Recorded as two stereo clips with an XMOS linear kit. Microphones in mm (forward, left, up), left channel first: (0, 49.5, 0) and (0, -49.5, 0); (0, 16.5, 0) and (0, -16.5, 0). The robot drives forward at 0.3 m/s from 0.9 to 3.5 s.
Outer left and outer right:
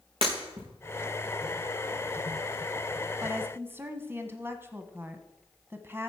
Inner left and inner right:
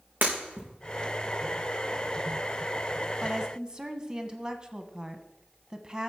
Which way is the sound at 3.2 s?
25° right (ahead or behind).